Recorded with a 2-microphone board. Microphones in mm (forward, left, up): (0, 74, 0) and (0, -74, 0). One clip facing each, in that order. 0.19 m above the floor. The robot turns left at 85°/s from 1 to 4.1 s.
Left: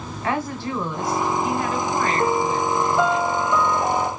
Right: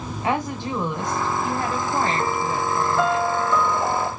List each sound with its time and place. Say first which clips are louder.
0.2 s a woman speaking: even; 35° right, 1.5 m; by 3.2 s 140° left, 1.5 m
2.2 s a piano: left 3 dB; 15° left (ahead or behind), 1.0 m; by 4.1 s 10° right (ahead or behind), 1.0 m